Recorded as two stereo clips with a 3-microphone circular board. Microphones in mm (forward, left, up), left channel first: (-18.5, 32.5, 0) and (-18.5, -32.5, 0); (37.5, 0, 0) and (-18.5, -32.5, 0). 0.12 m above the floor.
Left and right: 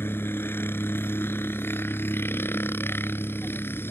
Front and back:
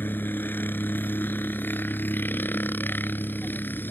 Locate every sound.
0.0 s a helicopter: 65° left